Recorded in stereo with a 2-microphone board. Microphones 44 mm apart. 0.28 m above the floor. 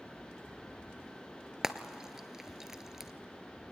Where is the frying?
10° right (ahead or behind), 0.7 m.